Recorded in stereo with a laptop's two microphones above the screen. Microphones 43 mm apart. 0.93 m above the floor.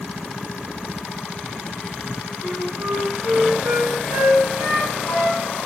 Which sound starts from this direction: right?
A flute, at 2.4 s.